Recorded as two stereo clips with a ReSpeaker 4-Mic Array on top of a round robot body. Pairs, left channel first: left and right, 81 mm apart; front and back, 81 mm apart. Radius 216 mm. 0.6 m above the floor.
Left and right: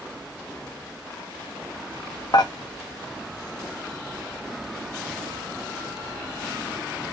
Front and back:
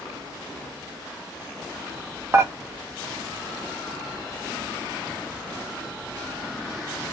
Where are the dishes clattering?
120° left, 0.6 m.